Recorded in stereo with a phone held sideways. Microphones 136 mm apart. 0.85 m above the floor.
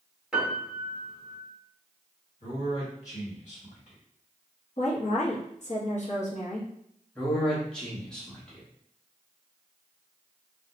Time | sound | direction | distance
0.3 | a piano | 5° right (ahead or behind) | 0.9 m
2.4 | a man speaking | 55° left (ahead or behind) | 1.5 m
4.8 | a woman speaking | 55° left (ahead or behind) | 0.9 m
7.2 | a man speaking | 5° left (ahead or behind) | 1.1 m